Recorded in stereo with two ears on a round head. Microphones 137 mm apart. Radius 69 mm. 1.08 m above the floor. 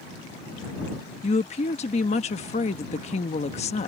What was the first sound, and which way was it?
A woman speaking, 45° left (ahead or behind).